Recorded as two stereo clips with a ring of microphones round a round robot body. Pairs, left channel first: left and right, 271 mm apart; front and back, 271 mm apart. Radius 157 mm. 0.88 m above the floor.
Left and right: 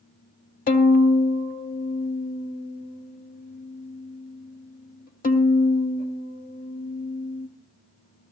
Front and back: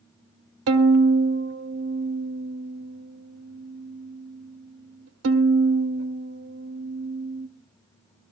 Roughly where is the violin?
Behind left.